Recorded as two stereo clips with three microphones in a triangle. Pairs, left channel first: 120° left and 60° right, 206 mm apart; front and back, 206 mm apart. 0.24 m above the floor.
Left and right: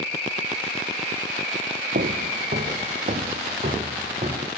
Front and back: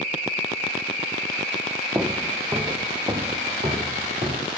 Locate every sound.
1.9 s footsteps: 105° right, 1.0 m; by 4.5 s 120° right, 3 m